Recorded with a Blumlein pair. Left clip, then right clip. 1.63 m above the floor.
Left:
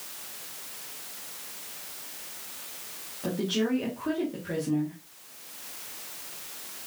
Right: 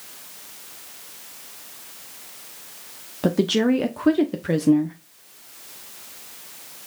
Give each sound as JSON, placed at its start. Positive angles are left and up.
{"t": 3.2, "sound": "a woman speaking", "azimuth_deg": -55, "distance_m": 1.1}